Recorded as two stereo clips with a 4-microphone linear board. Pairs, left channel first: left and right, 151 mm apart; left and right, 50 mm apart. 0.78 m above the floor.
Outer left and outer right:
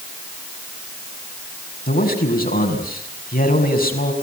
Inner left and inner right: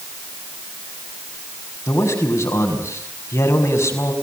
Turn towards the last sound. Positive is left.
turn(degrees=80)